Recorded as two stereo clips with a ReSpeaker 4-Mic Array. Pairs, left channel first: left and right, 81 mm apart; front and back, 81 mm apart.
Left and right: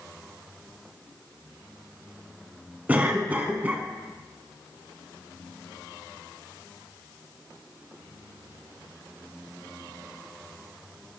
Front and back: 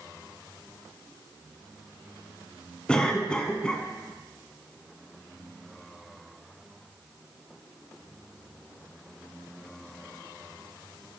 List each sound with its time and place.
2.9 s a cough: 60° right, 1.2 m